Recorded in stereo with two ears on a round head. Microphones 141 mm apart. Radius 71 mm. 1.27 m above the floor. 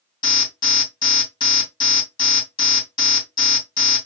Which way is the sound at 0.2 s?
30° left (ahead or behind).